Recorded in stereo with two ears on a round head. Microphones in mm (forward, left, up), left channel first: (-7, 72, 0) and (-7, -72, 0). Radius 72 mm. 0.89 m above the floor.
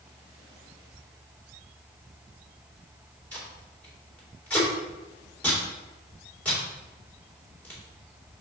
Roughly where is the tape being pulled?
Centre.